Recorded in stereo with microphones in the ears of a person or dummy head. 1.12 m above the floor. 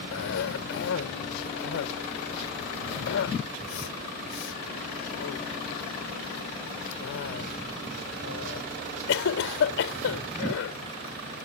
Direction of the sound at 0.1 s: 70° left (ahead or behind).